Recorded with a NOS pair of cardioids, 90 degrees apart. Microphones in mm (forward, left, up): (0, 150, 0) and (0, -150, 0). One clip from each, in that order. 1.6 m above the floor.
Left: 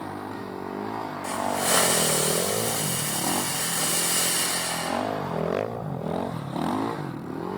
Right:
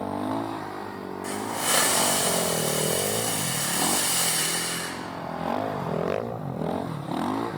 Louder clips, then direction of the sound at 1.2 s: Left 2 dB; straight ahead.